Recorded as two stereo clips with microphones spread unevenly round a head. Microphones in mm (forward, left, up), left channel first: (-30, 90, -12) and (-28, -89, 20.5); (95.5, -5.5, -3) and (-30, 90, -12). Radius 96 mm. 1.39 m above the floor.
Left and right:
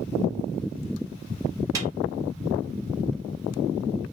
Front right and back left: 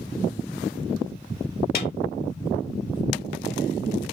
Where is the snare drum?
15° right, 2.5 m.